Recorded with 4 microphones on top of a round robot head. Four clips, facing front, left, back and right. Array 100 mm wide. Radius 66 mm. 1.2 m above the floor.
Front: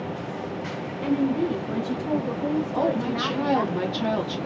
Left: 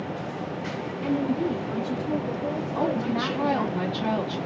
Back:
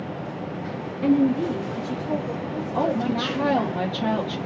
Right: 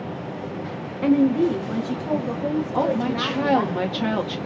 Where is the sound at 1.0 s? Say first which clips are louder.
Right 8 dB, back 4 dB; 95° right, 0.8 m; by 3.7 s 40° right, 3 m.